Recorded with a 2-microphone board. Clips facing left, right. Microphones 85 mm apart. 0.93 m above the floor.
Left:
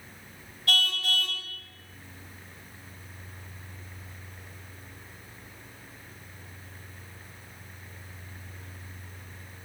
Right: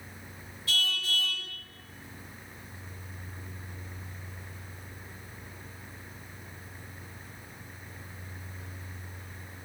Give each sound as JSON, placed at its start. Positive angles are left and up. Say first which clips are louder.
{"t": 0.7, "sound": "a car horn", "louder": "left 3 dB", "side_deg": 55, "distance_m": 3.0}